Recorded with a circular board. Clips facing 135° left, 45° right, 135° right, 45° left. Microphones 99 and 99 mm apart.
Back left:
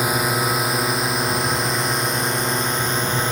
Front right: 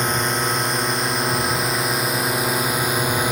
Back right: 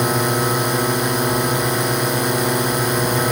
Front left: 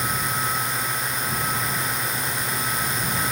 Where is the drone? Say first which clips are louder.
Back left 1 dB, back right 8 dB; 145° right; by 3.3 s 125° right.